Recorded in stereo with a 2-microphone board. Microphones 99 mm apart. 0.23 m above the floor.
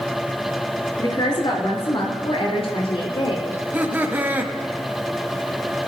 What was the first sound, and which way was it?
A woman speaking, 40° left (ahead or behind).